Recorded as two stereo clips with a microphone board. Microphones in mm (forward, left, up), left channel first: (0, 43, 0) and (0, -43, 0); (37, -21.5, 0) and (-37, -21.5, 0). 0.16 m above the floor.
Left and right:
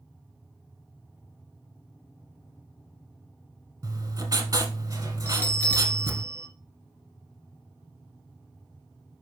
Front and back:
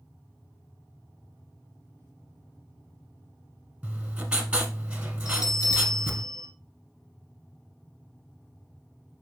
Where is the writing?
110° right, 0.9 m.